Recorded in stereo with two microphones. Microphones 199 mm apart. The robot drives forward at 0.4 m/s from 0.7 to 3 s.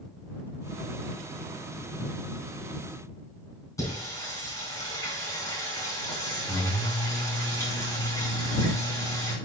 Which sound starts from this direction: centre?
Singing, at 3.8 s.